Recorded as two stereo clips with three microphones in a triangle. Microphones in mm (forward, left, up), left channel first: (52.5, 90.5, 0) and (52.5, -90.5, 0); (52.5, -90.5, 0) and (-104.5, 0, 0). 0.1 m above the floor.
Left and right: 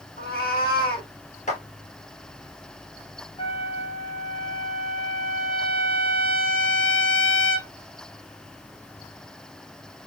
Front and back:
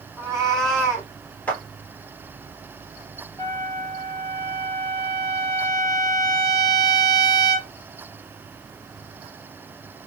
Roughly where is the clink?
No clink in this recording.